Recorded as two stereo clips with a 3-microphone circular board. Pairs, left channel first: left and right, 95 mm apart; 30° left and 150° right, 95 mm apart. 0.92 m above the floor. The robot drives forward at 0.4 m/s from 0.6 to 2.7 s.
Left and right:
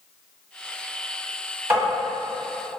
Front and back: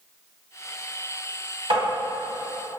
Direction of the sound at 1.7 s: 155° right.